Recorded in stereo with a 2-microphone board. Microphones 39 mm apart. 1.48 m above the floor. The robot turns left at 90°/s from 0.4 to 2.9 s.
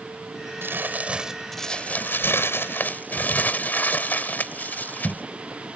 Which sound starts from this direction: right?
Crumpling, at 0.6 s.